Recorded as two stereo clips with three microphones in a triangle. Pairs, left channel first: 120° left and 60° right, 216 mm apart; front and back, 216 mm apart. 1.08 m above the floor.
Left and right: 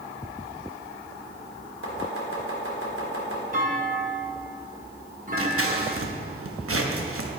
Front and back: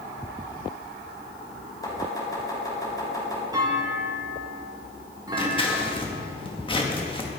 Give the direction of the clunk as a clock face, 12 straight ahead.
4 o'clock.